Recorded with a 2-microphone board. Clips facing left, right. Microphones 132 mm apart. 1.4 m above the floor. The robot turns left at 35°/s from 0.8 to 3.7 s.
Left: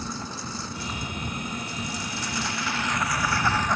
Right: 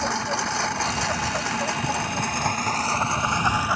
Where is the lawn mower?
75° right (ahead or behind); by 3.8 s 10° right (ahead or behind).